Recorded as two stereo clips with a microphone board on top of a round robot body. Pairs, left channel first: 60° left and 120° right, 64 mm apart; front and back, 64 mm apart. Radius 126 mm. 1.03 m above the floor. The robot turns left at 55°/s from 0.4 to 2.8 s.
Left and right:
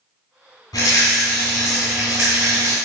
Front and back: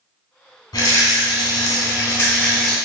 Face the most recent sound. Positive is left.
turn(degrees=-90)